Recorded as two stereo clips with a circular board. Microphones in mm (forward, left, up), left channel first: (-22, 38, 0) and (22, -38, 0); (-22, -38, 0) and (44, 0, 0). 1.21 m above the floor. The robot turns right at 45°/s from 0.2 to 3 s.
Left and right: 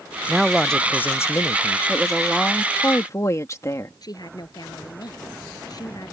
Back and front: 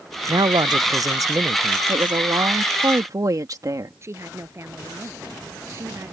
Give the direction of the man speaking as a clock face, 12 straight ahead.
11 o'clock.